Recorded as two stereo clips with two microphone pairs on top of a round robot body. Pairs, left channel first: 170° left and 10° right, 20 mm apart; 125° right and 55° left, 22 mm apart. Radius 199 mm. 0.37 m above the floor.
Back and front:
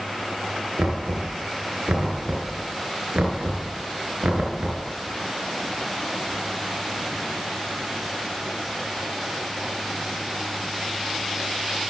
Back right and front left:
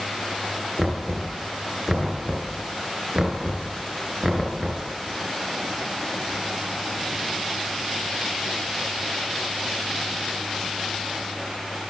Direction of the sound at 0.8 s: 20° right.